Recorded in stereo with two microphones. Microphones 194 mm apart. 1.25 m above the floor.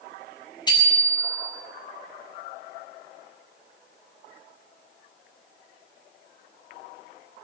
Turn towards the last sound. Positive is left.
turn(degrees=20)  # may be behind; listen again after turning